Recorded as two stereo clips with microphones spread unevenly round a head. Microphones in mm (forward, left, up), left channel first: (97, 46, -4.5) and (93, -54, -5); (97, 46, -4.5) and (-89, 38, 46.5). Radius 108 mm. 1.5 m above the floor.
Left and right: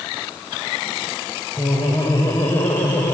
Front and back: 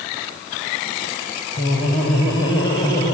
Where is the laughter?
30° left, 6 m; by 3.1 s 20° left, 6.5 m.